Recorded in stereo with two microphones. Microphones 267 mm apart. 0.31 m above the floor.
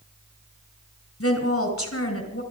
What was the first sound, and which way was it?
A woman speaking, 55° left (ahead or behind).